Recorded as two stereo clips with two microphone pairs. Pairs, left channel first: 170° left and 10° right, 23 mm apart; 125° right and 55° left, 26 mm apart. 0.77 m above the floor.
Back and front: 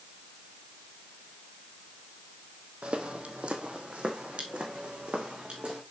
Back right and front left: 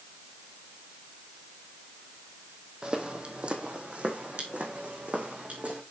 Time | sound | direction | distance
2.8 | footsteps | 5° left | 1.4 m